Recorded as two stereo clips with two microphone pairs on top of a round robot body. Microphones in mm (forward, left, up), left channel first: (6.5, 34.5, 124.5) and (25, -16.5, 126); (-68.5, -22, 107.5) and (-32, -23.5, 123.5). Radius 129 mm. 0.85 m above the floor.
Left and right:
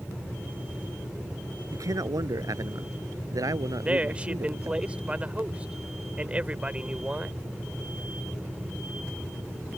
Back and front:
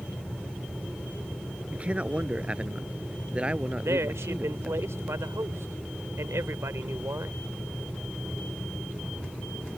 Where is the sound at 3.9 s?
Straight ahead.